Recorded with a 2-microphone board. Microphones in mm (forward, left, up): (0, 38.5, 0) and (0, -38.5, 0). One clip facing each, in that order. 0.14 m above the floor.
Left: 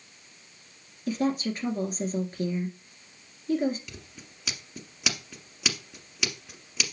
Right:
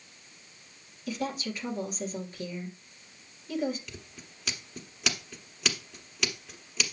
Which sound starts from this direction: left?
A woman speaking, at 1.1 s.